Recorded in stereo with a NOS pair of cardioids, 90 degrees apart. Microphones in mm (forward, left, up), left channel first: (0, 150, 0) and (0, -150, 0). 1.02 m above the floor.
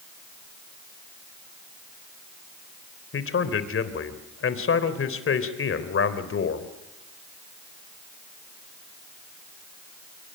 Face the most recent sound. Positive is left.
turn(degrees=45)